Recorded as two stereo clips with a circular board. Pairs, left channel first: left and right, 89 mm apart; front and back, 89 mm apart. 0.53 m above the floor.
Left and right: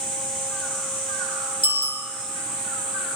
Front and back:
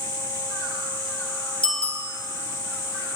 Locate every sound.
1.6 s a bicycle bell: 80° left, 7.5 m